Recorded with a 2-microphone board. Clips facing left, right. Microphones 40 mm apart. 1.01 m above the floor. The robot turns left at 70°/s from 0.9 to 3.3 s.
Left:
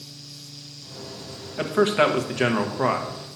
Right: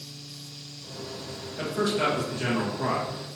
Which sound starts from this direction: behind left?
A man speaking, at 1.6 s.